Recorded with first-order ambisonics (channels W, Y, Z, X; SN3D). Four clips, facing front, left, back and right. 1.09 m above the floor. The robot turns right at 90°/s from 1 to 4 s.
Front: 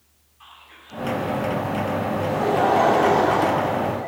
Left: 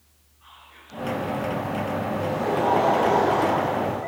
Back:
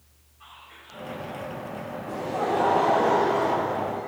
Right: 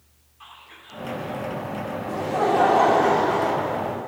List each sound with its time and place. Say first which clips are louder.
0.4 s whispering: right 4 dB, front 1 dB; 60° right, 3 m; by 1.5 s 20° right, 3 m
2.1 s laughter: right 6 dB, front 1 dB; 125° right, 1.3 m; by 4.1 s 50° left, 1.3 m